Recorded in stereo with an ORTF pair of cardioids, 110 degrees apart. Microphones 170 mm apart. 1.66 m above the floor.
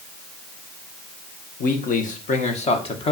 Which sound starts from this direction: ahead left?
A man speaking, at 1.6 s.